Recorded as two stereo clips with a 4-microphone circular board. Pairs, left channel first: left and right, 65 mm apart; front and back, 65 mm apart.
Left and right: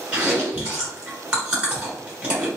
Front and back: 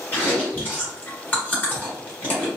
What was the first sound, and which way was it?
Chewing, 30° right.